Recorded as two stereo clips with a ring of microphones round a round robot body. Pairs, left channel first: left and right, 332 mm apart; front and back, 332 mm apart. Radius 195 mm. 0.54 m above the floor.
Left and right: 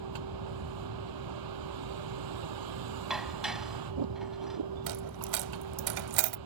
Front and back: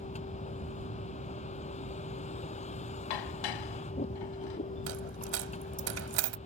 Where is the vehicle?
75° right.